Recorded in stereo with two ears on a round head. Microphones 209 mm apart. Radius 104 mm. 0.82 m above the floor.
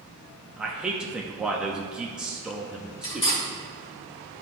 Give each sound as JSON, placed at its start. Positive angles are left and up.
{"t": 0.6, "sound": "a man speaking", "side_deg": -5, "distance_m": 0.7}
{"t": 3.0, "sound": "cutlery clinking", "side_deg": 25, "distance_m": 2.0}